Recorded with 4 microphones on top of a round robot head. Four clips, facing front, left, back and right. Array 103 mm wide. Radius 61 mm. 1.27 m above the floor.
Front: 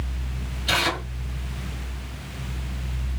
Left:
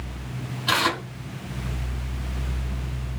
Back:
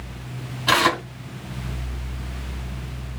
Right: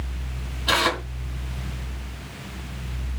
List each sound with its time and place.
0.7 s tearing paper: 175° left, 2.5 m